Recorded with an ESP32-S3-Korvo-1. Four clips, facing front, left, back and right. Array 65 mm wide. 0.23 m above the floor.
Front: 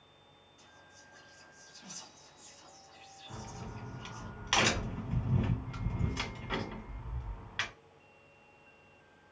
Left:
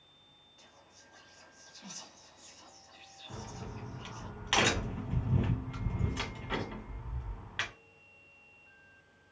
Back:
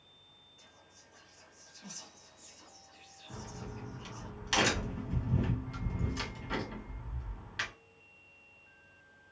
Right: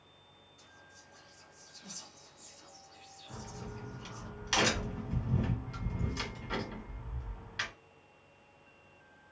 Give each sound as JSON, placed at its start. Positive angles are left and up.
{"t": 0.6, "sound": "whispering", "azimuth_deg": 90, "distance_m": 1.3}
{"t": 3.3, "sound": "a crack", "azimuth_deg": 50, "distance_m": 1.5}